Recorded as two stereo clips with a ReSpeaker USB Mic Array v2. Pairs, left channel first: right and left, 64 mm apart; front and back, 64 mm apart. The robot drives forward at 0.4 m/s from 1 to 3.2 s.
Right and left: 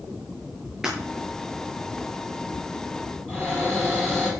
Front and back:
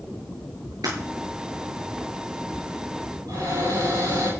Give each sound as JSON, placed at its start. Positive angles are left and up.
{"t": 0.8, "sound": "breaking glass", "azimuth_deg": 175, "distance_m": 8.0}
{"t": 3.3, "sound": "a cupboard door", "azimuth_deg": -170, "distance_m": 9.0}